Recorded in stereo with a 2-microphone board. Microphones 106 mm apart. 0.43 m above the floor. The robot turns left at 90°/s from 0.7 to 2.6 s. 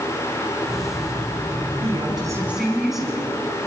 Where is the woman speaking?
105° right, 4.5 m; by 3.3 s 175° right, 4.5 m.